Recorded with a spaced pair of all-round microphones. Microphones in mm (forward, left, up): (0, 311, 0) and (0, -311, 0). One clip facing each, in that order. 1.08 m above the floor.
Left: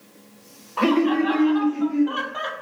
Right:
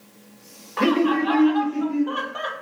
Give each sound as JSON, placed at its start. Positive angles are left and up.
{"t": 0.8, "sound": "laughter", "side_deg": -45, "distance_m": 0.7}